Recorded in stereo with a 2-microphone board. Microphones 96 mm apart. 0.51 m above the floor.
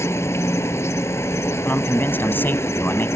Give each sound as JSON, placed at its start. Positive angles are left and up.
{"t": 0.0, "sound": "an insect", "side_deg": 30}
{"t": 1.6, "sound": "a man speaking", "side_deg": 20}